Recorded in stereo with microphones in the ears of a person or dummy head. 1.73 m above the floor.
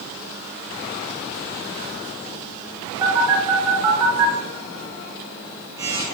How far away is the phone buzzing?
About 0.9 m.